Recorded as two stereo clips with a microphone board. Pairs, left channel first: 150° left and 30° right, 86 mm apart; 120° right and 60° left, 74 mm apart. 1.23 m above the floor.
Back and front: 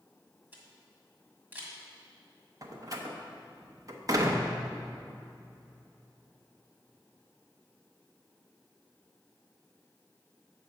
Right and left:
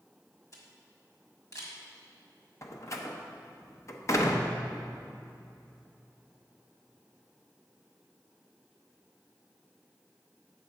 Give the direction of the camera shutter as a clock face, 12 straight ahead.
3 o'clock.